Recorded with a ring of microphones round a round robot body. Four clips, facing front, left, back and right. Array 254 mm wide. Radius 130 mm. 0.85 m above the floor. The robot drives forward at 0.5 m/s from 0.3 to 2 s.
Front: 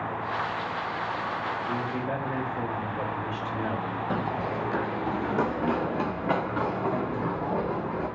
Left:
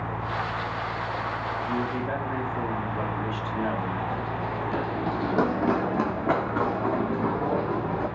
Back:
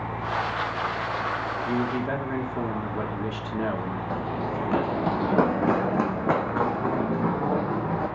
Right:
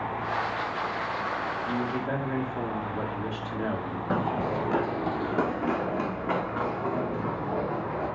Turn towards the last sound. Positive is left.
turn(degrees=145)